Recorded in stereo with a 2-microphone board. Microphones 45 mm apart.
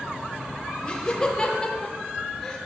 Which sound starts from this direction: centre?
Laughter, at 0.8 s.